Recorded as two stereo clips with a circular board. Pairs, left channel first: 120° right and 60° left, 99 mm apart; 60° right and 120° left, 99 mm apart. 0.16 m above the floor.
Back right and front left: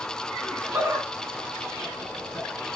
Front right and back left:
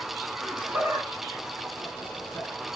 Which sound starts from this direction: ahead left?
Laughter, at 0.4 s.